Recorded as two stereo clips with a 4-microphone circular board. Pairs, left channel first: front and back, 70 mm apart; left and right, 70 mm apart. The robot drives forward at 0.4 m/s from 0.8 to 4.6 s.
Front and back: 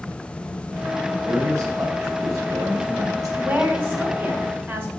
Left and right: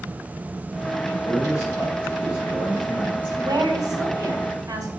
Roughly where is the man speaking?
Behind left.